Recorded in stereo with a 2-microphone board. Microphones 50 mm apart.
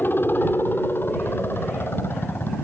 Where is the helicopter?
40° left (ahead or behind); by 2.6 s 50° left (ahead or behind).